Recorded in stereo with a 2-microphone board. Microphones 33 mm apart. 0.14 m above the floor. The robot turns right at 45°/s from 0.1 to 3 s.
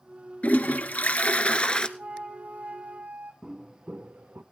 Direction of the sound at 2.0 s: 110° right.